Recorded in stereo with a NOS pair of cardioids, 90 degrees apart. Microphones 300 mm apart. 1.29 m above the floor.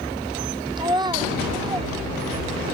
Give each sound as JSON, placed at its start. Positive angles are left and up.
{"t": 0.8, "sound": "a child speaking", "azimuth_deg": -15, "distance_m": 0.6}